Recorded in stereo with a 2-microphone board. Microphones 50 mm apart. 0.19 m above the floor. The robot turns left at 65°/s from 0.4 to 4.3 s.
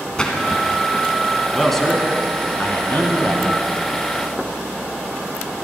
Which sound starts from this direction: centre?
A splash, at 0.2 s.